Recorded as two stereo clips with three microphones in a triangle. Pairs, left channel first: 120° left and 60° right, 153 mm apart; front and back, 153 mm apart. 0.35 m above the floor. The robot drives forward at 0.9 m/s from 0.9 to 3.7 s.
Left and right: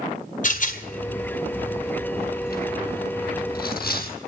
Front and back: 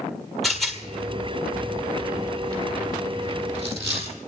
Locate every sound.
0.4 s a rattle: 90° left, 3 m; by 4.1 s 130° left, 4 m